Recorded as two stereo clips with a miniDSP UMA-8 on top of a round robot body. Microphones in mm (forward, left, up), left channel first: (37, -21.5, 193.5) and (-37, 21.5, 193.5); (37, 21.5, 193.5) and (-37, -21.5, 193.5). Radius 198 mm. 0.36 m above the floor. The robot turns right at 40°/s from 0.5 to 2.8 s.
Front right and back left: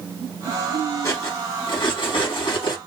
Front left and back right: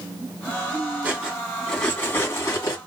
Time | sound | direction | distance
1.0 | cutlery clinking | 80° right | 1.9 m